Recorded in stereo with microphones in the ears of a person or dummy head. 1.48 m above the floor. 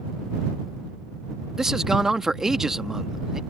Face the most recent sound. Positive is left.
turn(degrees=0)  # may be behind; listen again after turning